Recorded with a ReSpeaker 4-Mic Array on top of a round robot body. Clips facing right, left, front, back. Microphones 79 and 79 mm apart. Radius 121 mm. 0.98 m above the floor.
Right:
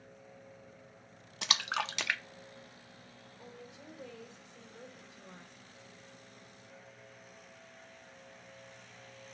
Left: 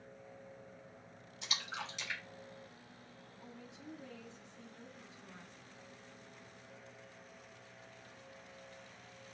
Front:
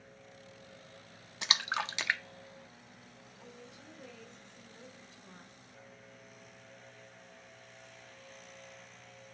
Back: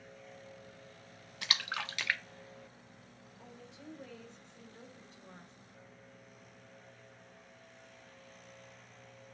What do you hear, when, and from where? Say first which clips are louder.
1.4 s a splash: right 9 dB, front 4 dB; 70° right, 0.6 m
3.4 s a woman speaking: right 2 dB, back 1 dB; 120° right, 4.5 m